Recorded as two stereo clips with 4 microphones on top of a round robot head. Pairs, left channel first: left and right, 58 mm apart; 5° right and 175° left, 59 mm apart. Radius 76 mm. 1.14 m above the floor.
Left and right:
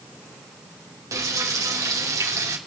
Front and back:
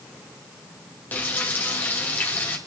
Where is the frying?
60° right, 2 m.